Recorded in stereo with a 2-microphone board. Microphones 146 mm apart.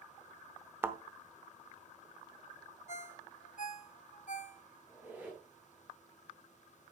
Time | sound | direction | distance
0.8 | a thud | 15° right (ahead or behind) | 0.8 m
2.9 | a ringtone | 55° left (ahead or behind) | 0.9 m
4.9 | a squeak | 10° right (ahead or behind) | 4.5 m